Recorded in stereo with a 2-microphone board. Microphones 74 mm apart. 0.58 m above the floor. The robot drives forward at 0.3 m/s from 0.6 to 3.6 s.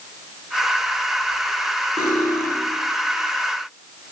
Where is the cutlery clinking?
85° right, 8.5 m.